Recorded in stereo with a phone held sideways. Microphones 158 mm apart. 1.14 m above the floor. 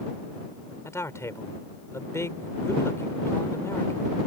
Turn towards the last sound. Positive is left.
turn(degrees=20)  # may be behind; listen again after turning